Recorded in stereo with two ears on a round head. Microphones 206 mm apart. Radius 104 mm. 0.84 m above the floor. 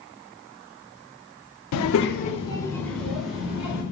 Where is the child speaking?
80° left, 0.9 m; by 3.8 s 5° right (ahead or behind), 3.5 m.